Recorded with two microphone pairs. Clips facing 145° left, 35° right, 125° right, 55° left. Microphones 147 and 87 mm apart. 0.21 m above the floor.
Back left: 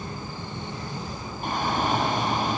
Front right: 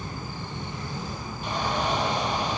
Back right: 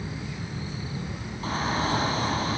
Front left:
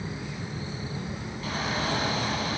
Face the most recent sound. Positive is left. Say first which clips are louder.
# back left 2 dB, back right 3 dB
turn(degrees=180)